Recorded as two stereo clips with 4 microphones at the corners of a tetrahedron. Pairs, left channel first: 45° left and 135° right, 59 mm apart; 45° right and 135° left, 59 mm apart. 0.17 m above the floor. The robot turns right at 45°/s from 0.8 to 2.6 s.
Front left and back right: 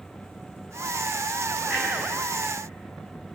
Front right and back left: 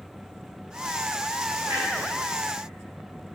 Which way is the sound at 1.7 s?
135° left.